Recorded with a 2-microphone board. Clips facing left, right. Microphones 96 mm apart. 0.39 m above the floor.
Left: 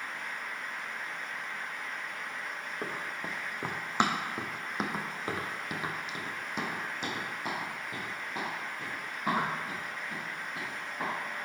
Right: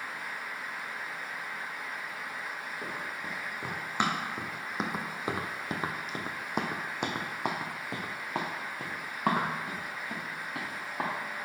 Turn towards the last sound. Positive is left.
turn(degrees=-85)